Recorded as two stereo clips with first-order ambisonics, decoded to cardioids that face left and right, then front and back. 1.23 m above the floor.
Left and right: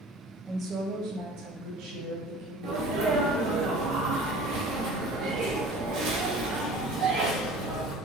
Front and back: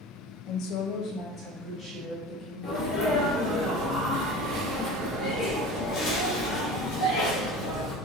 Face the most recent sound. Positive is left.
turn(degrees=-55)